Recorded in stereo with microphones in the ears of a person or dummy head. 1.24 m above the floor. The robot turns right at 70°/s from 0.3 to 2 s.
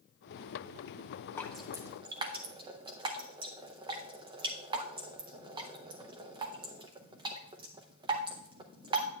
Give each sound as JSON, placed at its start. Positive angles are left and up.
{"t": 1.4, "sound": "dripping", "side_deg": 15, "distance_m": 0.6}